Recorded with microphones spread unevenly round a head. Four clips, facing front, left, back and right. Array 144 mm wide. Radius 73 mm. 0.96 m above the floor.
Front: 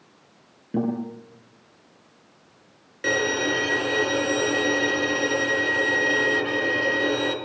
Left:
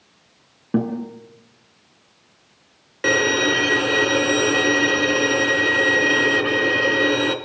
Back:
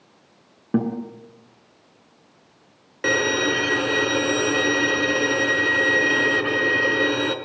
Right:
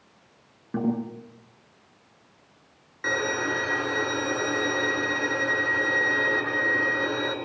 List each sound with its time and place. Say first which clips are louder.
0.7 s a guitar: left 4 dB, back 2 dB; 145° left, 5.5 m
3.0 s a violin: left 8 dB, back 2 dB; 135° left, 2.5 m